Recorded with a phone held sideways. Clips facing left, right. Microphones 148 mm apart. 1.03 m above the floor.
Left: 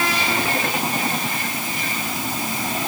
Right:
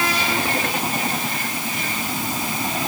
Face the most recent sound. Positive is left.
No sound to turn to.